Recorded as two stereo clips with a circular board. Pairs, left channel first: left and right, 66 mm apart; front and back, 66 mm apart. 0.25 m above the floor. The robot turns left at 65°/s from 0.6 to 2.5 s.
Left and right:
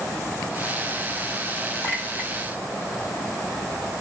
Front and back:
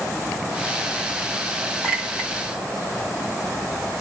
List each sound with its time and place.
1.8 s a clink: 100° left, 1.0 m; by 2.3 s 70° left, 1.0 m